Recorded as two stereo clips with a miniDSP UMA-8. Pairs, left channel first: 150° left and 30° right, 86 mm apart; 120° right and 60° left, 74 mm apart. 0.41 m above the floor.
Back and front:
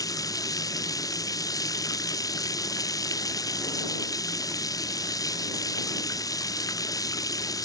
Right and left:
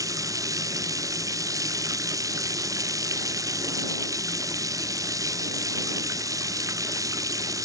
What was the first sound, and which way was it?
Running water, 100° left.